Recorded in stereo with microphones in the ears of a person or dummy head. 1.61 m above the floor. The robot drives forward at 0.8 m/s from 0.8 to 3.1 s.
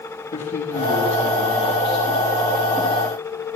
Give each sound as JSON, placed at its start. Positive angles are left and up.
{"t": 0.3, "sound": "a man speaking", "side_deg": 35, "distance_m": 3.0}